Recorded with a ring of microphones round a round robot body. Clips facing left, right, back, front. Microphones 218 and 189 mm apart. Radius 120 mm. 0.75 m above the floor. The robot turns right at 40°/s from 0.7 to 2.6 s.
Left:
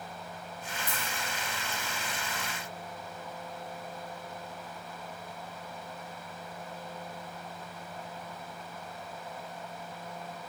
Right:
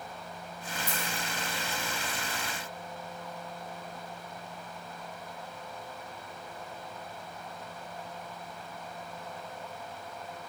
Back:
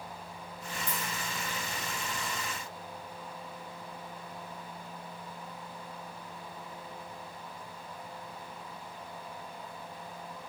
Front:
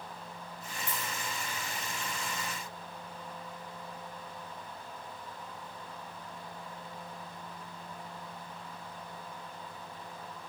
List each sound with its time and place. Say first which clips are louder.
0.9 s a dropped coin: right 3 dB, even; 170° right, 1.4 m; by 1.1 s 160° right, 1.4 m